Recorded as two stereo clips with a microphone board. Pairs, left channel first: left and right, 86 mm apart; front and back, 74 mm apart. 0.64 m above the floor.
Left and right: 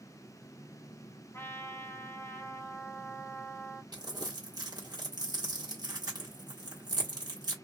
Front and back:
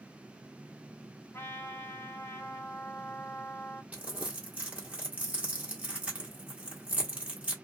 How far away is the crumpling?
About 1.3 m.